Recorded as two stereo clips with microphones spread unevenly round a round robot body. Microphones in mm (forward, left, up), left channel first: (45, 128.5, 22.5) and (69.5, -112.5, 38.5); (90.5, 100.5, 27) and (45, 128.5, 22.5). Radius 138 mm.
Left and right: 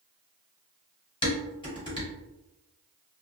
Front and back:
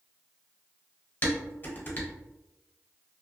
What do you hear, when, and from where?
1.2 s dishes clattering: 25° left, 1.4 m